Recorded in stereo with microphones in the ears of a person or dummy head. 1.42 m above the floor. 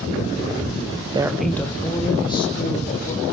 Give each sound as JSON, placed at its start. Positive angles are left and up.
{"t": 1.1, "sound": "a woman speaking", "side_deg": -25, "distance_m": 0.6}